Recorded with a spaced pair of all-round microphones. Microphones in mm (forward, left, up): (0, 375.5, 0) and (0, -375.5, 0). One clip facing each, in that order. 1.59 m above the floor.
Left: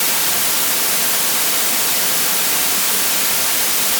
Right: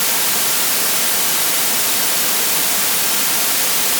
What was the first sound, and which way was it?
Only background noise.